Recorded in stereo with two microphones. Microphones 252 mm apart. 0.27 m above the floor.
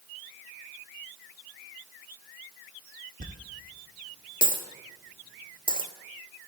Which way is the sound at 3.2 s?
35° right (ahead or behind).